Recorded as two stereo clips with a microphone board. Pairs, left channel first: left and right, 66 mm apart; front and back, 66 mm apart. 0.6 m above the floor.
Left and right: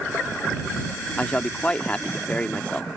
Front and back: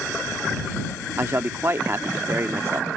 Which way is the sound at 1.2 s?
150° left.